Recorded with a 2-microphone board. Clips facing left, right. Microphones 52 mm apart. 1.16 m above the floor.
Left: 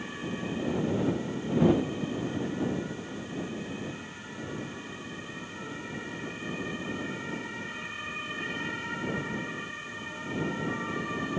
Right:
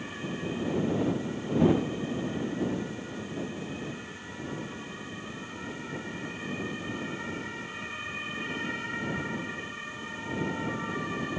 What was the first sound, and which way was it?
Only background noise.